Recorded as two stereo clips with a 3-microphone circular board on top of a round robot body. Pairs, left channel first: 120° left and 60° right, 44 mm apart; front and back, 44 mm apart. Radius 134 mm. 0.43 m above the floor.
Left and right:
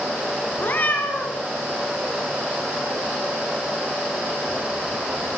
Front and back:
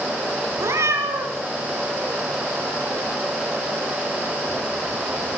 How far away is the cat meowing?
About 2 m.